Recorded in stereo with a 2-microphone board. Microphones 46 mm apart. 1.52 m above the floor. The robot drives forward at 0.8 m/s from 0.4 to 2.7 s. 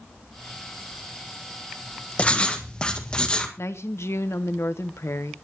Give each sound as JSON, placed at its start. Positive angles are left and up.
{"t": 2.2, "sound": "writing", "side_deg": 30, "distance_m": 1.4}
{"t": 3.6, "sound": "a woman speaking", "side_deg": 80, "distance_m": 1.0}